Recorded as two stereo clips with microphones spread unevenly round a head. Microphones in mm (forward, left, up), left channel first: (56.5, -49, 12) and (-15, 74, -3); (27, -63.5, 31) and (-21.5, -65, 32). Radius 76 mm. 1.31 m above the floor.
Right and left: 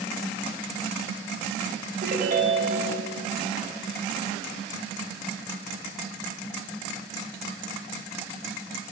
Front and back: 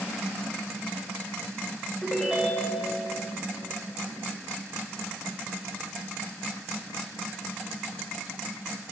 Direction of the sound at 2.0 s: 90° left.